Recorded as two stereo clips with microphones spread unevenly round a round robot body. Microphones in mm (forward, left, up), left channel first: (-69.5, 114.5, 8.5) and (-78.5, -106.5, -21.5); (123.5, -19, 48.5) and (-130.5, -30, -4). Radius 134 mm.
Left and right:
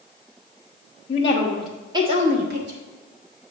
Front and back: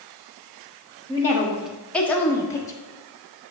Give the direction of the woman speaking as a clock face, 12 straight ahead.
8 o'clock.